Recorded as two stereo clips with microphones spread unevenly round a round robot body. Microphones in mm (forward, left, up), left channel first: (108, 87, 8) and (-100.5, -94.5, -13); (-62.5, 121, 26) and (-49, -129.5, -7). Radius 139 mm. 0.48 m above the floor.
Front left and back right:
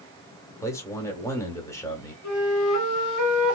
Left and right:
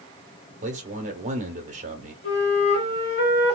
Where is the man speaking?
40° right, 1.0 m.